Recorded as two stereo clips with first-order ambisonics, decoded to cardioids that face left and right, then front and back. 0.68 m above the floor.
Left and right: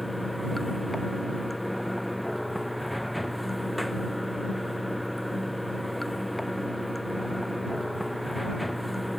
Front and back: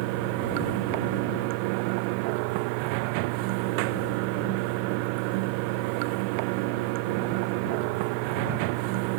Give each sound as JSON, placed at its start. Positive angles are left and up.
{"t": 0.0, "sound": "running water", "azimuth_deg": 175}